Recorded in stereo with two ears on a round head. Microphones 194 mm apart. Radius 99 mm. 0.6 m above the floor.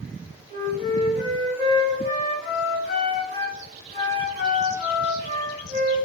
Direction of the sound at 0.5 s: 30° right (ahead or behind).